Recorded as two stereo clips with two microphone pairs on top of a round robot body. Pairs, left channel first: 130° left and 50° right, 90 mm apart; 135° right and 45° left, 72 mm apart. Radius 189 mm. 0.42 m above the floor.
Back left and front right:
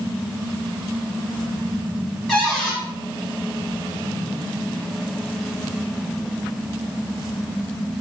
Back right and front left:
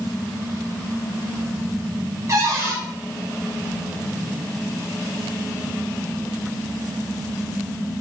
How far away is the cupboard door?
About 1.5 m.